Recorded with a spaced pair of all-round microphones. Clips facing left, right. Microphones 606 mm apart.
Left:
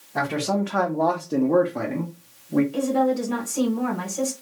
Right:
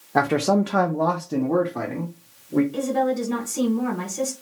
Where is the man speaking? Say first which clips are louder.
Right 5 dB; 80° right, 0.6 m; by 2.6 s 15° left (ahead or behind), 1.0 m.